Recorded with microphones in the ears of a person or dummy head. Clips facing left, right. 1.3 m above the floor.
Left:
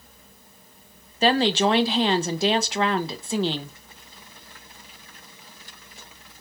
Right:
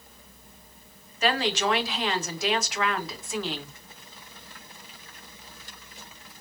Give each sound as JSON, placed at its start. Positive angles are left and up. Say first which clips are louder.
{"t": 1.2, "sound": "a woman speaking", "louder": "left 6 dB", "side_deg": 25, "distance_m": 0.6}